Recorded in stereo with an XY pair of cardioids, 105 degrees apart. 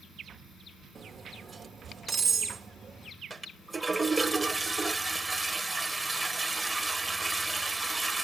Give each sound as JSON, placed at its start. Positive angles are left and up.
{"t": 0.9, "sound": "cutlery clinking", "azimuth_deg": -40, "distance_m": 1.2}
{"t": 3.3, "sound": "a toilet flushing", "azimuth_deg": -15, "distance_m": 1.0}